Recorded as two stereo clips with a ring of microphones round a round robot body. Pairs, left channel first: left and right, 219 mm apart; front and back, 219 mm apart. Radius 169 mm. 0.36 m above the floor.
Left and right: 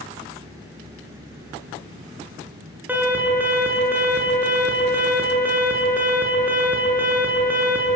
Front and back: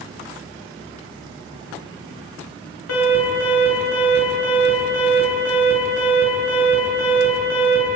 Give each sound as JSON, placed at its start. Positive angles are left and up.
{"t": 2.9, "sound": "an alarm", "azimuth_deg": -10, "distance_m": 8.5}